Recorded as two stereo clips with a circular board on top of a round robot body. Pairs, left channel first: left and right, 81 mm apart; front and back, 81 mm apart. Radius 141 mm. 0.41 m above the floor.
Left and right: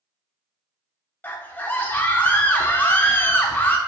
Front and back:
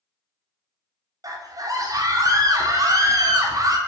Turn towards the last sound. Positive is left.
turn(degrees=155)